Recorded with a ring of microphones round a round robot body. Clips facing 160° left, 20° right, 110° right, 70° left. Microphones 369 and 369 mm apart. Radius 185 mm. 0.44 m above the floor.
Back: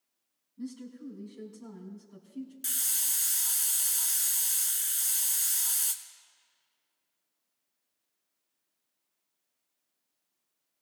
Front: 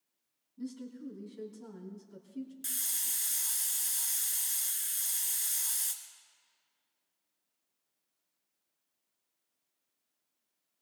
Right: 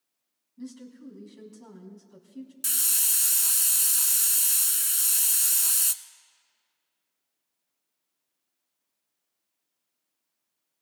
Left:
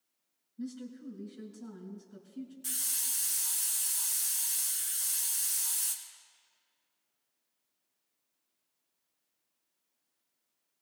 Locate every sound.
0.6 s a woman speaking: 110° right, 3.5 m
2.6 s a hiss: 120° right, 0.9 m